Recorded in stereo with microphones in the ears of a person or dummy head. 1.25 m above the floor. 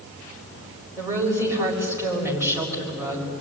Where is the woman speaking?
15° right (ahead or behind), 6.5 m.